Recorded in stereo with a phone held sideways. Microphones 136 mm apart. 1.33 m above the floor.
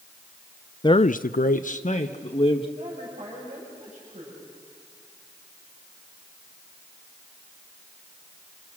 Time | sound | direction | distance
0.8 | a man speaking | 30° left (ahead or behind) | 0.6 m
2.8 | a woman speaking | 60° right (ahead or behind) | 6.5 m